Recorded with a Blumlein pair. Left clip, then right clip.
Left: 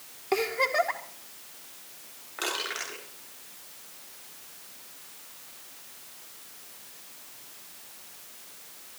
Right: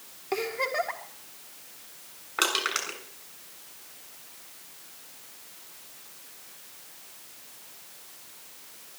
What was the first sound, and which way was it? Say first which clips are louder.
A giggle: left 3 dB; 10° left.